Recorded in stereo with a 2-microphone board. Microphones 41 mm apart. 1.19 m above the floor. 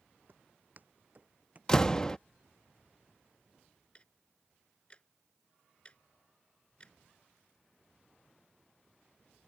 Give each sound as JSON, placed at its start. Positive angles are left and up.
{"t": 0.3, "sound": "footsteps", "side_deg": -50}
{"t": 1.7, "sound": "a door slam", "side_deg": 15}
{"t": 4.0, "sound": "ticking", "side_deg": 25}